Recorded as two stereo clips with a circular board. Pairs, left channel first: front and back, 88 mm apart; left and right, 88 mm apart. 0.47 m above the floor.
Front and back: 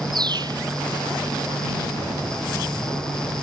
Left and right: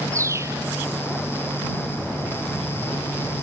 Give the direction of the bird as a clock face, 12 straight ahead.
5 o'clock.